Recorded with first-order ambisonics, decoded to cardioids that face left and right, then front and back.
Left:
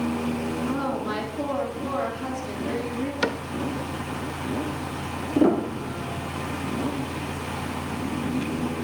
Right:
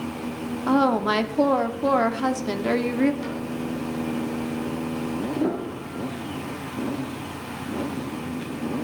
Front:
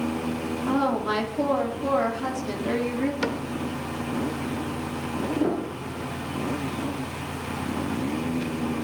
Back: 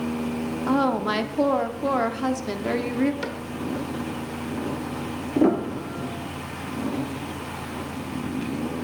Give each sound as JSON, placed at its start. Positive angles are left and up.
{"t": 0.7, "sound": "a woman speaking", "azimuth_deg": -115, "distance_m": 0.8}
{"t": 3.2, "sound": "a cupboard door", "azimuth_deg": 75, "distance_m": 0.8}
{"t": 5.3, "sound": "a piano", "azimuth_deg": 135, "distance_m": 0.8}